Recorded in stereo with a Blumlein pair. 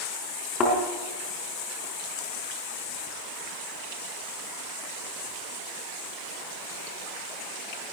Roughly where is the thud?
Ahead left.